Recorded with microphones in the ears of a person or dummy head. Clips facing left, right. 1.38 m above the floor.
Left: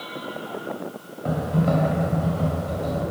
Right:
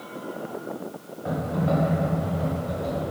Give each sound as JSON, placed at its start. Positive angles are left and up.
{"t": 1.2, "sound": "typing on a keyboard", "side_deg": 55, "distance_m": 0.7}